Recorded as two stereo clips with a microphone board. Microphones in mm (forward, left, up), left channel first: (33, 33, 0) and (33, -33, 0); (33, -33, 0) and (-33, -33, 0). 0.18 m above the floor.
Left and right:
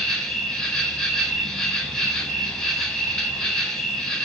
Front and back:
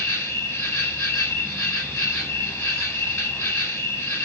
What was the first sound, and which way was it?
An insect, 15° left.